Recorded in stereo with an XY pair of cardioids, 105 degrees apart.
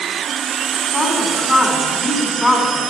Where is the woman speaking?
20° left, 4 m.